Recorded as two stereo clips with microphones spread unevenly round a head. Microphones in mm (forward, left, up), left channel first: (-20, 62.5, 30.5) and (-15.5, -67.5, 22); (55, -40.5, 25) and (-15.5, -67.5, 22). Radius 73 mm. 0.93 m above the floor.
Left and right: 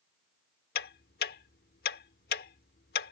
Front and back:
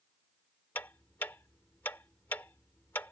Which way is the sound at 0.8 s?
100° left.